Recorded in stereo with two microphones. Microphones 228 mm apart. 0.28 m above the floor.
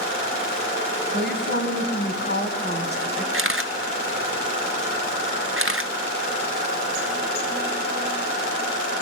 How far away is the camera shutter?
About 1.2 m.